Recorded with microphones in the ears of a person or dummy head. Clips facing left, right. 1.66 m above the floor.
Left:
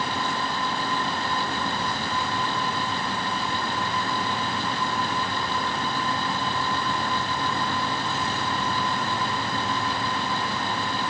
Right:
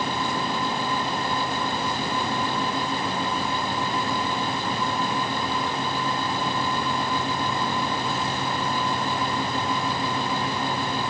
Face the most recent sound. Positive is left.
No sound to turn to.